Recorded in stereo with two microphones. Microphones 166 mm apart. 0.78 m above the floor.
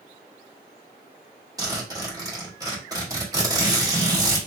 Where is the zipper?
20° right (ahead or behind), 1.6 m.